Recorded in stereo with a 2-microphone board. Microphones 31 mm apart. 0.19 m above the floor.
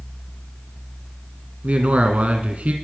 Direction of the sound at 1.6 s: 45° right (ahead or behind).